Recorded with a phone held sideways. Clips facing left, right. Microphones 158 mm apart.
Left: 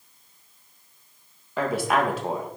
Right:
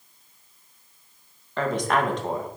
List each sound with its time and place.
1.6 s a woman speaking: 5° left (ahead or behind), 1.9 m